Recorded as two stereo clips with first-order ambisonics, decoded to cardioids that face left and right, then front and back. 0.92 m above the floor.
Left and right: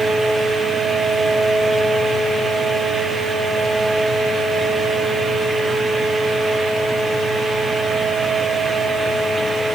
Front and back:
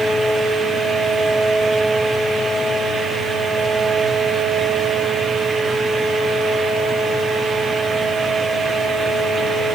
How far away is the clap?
I don't hear a clap.